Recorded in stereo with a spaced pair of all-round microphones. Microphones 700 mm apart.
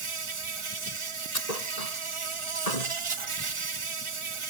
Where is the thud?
75° left (ahead or behind).